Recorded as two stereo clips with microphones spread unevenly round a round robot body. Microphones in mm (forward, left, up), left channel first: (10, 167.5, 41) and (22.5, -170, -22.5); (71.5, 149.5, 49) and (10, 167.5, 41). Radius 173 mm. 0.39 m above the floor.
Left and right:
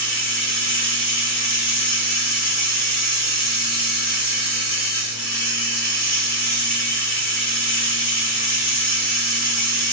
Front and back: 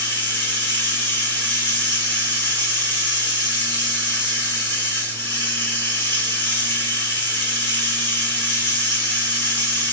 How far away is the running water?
About 1.9 m.